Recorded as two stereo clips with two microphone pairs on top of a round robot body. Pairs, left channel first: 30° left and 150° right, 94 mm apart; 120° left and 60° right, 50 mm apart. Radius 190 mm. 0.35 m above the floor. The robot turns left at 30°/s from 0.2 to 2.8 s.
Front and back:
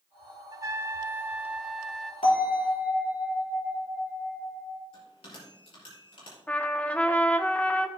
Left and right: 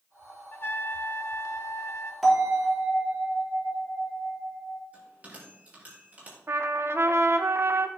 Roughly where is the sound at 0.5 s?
Behind.